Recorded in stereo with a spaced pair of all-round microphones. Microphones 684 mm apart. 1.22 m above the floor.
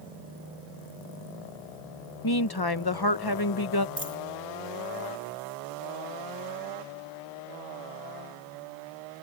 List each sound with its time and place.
2.2 s a woman speaking: 35° left (ahead or behind)
4.0 s a dropped coin: 50° right (ahead or behind)